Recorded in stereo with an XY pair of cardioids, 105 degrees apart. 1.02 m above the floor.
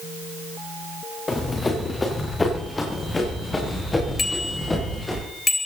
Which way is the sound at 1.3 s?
25° left.